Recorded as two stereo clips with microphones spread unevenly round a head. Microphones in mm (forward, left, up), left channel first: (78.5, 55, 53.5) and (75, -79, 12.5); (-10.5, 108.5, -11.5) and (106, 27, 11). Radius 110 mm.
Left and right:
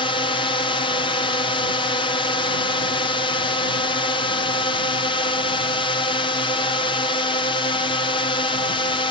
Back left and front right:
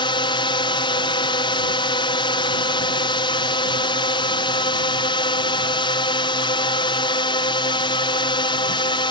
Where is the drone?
150° left.